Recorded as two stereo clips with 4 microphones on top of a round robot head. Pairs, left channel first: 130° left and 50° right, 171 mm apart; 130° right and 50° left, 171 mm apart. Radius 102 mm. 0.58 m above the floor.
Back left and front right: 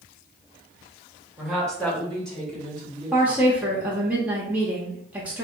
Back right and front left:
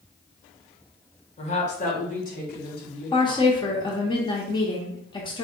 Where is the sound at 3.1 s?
120° right, 0.8 m.